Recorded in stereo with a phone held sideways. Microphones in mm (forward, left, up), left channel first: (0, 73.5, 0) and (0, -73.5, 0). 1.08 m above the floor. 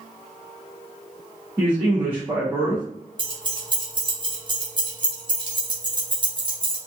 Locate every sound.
1.6 s a man speaking: 20° right (ahead or behind), 1.5 m
3.2 s keys jangling: 30° right (ahead or behind), 1.0 m